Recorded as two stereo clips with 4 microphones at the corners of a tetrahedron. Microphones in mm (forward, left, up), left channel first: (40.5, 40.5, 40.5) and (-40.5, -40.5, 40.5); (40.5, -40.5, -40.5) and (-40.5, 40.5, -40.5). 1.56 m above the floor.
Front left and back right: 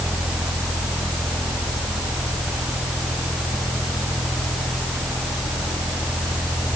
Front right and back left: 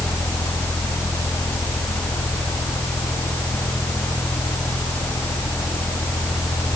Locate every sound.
Only background noise.